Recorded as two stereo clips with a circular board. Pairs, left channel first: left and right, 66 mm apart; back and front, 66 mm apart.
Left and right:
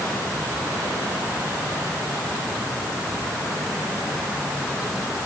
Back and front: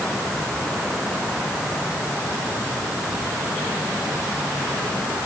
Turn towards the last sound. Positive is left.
No sound to turn to.